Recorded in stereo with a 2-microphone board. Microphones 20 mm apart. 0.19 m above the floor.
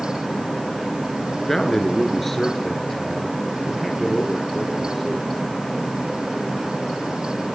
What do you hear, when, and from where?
1.4 s a man speaking: 15° left (ahead or behind), 2.5 m; by 5.3 s 5° left (ahead or behind), 5.5 m